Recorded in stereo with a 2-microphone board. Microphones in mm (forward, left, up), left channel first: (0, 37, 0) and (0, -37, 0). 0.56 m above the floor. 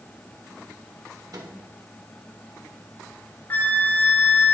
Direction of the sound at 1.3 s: 60° right (ahead or behind).